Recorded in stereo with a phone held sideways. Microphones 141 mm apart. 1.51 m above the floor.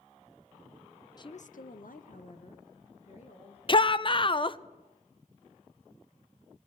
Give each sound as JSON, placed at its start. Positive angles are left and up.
{"t": 1.2, "sound": "a woman speaking", "side_deg": 30, "distance_m": 0.6}
{"t": 3.7, "sound": "a shout", "side_deg": 40, "distance_m": 0.6}